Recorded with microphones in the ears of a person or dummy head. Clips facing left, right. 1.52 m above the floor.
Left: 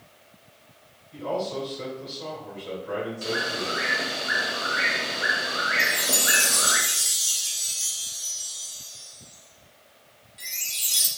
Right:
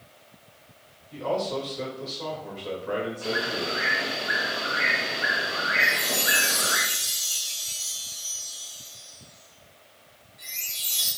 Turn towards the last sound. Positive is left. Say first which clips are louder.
# even
turn(degrees=45)  # may be behind; listen again after turning